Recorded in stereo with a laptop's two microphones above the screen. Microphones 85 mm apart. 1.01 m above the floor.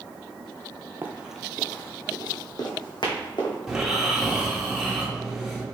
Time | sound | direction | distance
1.0 | running footsteps | 25° right (ahead or behind) | 1.1 m
3.7 | snoring | 5° right (ahead or behind) | 1.3 m